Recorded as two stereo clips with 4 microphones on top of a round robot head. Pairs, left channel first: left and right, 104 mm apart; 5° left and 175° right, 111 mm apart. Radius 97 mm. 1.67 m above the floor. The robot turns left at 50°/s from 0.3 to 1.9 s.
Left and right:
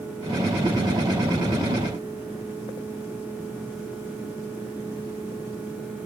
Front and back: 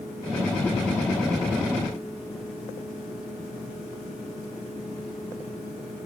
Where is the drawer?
I don't hear a drawer.